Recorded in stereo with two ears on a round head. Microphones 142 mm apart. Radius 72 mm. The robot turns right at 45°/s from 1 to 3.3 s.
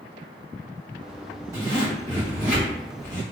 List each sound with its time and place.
1.5 s a zipper: 20° right (ahead or behind), 1.7 m; by 3.2 s 45° right (ahead or behind), 1.7 m